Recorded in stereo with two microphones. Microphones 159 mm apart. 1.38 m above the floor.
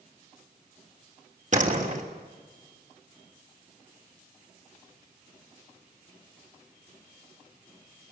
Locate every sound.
1.5 s a door slam: 50° right (ahead or behind), 3 m